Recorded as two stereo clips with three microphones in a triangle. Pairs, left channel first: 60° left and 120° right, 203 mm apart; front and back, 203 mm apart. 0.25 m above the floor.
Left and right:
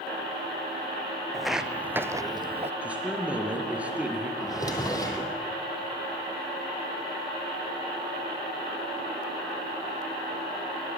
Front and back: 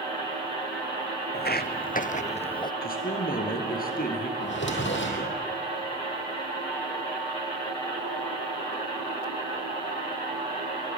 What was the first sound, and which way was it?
Footsteps, 30° right.